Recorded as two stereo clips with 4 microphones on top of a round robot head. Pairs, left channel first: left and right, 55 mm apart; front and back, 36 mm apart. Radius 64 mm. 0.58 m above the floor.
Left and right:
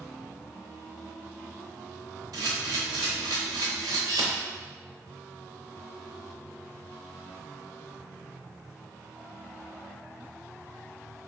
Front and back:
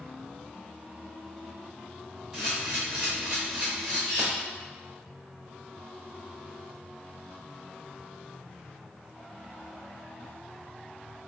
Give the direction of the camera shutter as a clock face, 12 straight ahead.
3 o'clock.